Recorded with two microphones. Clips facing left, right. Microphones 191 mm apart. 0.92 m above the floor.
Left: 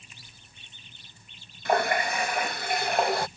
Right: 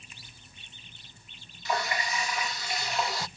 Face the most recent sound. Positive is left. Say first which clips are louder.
# left 7 dB
turn(degrees=55)  # may be behind; listen again after turning